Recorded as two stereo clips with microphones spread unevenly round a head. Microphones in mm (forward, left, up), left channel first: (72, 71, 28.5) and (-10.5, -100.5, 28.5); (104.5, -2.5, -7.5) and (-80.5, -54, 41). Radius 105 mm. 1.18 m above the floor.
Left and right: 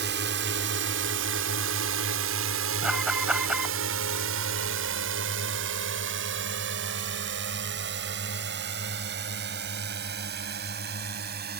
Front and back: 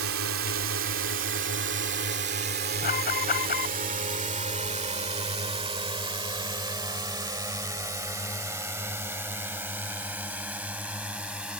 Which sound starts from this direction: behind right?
A drone, at 0.0 s.